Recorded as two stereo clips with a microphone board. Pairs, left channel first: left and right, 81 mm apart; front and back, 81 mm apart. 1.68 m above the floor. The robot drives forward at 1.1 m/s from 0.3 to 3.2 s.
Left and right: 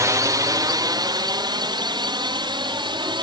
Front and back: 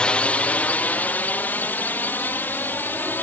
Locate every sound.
0.0 s a drone: 75° right; by 3.2 s 70° right